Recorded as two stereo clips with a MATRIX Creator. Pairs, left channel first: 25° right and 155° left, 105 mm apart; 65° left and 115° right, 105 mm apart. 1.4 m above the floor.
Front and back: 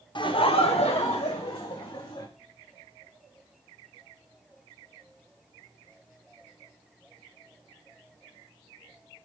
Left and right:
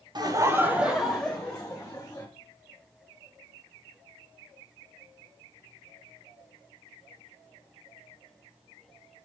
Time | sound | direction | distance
0.1 | laughter | 65° right | 0.8 m